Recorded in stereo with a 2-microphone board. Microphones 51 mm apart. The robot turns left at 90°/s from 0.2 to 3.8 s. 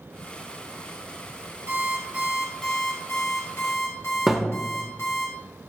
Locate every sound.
1.7 s an alarm clock: 100° right, 1.3 m; by 5.3 s 70° left, 1.3 m
4.3 s a thud: 5° right (ahead or behind), 0.5 m